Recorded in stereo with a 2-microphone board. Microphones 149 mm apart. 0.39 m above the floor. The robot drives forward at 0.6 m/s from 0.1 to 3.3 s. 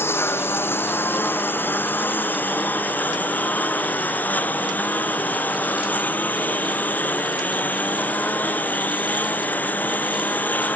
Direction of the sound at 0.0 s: 15° left (ahead or behind).